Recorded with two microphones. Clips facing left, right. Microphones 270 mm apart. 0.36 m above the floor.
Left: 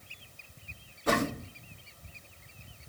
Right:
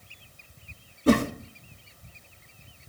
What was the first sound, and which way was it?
A whoosh, 35° right (ahead or behind).